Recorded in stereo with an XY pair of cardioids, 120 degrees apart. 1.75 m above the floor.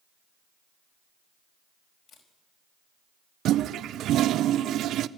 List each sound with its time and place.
2.1 s a camera shutter: 60° left, 4.5 m
3.5 s a toilet flushing: 65° right, 0.6 m